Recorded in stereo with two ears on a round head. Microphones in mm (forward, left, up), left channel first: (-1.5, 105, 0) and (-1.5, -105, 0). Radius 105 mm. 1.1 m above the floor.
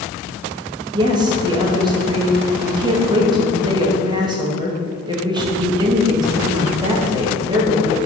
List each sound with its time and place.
0.9 s a woman speaking: 20° right (ahead or behind), 1.5 m